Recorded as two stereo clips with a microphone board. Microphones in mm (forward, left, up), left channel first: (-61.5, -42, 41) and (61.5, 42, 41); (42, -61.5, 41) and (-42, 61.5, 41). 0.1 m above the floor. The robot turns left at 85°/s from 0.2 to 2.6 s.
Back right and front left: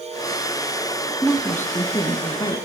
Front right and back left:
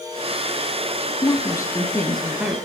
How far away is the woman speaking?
About 1.6 m.